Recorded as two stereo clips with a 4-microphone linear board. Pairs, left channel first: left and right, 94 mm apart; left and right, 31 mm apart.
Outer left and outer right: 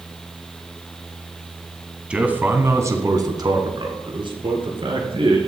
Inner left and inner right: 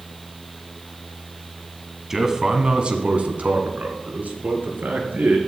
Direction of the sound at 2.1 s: 10° right (ahead or behind).